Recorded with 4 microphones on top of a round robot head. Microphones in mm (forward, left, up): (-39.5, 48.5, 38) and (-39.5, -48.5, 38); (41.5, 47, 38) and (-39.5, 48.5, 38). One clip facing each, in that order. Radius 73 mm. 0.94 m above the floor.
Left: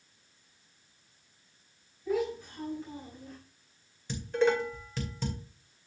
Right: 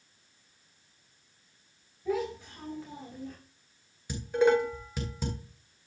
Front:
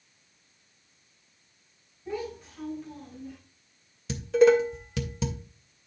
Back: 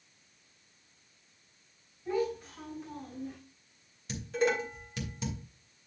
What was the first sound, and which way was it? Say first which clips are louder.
A child speaking: left 1 dB, back 3 dB; 90° right.